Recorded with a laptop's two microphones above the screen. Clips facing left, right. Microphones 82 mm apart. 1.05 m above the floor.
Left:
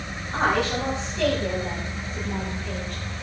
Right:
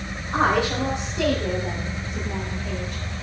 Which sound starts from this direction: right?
A woman speaking, at 0.3 s.